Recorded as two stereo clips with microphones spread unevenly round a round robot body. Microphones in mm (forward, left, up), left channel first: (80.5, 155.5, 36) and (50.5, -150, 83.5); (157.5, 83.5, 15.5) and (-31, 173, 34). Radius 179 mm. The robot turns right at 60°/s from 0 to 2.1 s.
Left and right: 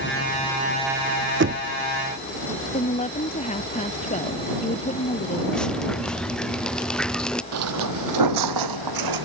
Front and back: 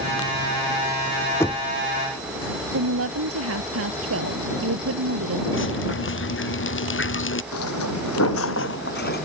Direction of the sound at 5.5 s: 5° right.